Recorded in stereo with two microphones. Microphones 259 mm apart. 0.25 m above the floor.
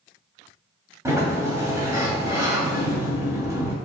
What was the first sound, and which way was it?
A sliding door, 10° right (ahead or behind).